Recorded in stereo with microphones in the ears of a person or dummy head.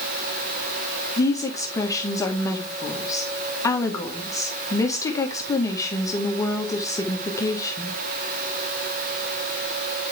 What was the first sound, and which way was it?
A woman speaking, 20° left (ahead or behind).